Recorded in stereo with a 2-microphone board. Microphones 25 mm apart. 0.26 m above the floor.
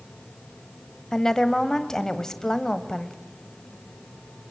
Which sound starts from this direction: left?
A woman speaking, at 1.1 s.